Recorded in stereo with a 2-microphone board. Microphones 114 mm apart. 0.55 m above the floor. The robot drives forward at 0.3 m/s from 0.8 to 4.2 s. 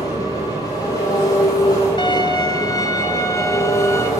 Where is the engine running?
35° left (ahead or behind), 7.5 m; by 4.2 s 30° left (ahead or behind), 8.5 m.